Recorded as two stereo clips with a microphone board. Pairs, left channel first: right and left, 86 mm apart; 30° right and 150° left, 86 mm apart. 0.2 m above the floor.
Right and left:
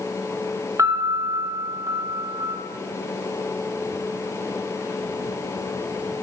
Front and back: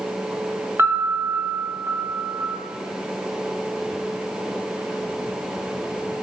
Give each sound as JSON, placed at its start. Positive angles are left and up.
{"t": 0.8, "sound": "a piano", "azimuth_deg": 110, "distance_m": 0.8}